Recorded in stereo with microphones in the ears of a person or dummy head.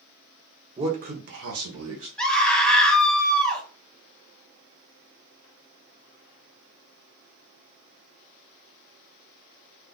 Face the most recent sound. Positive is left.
turn(degrees=0)  # may be behind; listen again after turning